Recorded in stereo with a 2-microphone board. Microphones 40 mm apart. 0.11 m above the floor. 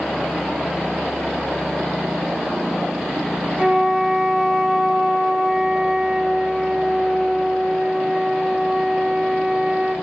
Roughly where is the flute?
Right.